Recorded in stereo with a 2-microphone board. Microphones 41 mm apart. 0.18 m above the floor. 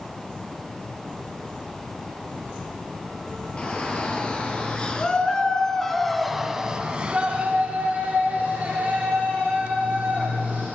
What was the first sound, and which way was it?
A shout, 30° left (ahead or behind).